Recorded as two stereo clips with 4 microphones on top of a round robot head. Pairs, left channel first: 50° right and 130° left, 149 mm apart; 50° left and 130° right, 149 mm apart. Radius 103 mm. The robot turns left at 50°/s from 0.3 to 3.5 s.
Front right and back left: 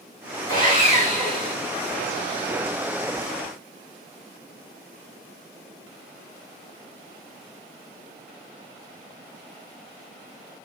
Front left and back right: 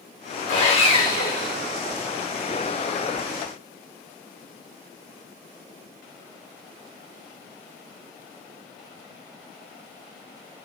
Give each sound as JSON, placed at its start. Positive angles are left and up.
{"t": 0.5, "sound": "sawing", "azimuth_deg": 15, "distance_m": 5.5}